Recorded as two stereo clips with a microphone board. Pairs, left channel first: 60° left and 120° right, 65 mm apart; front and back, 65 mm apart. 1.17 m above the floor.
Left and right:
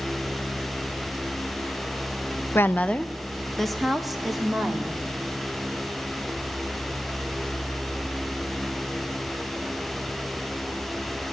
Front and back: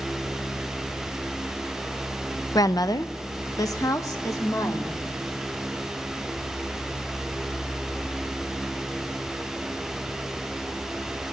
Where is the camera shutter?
I don't hear a camera shutter.